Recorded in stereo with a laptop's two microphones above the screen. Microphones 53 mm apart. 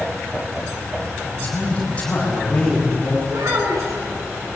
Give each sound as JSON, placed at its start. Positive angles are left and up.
{"t": 1.2, "sound": "a man speaking", "side_deg": 25, "distance_m": 6.5}
{"t": 3.3, "sound": "a child speaking", "side_deg": -75, "distance_m": 8.0}